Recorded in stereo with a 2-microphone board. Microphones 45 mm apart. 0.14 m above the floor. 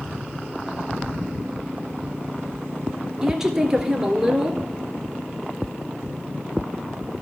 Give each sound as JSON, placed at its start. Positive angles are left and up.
{"t": 3.2, "sound": "a woman speaking", "side_deg": -10, "distance_m": 2.0}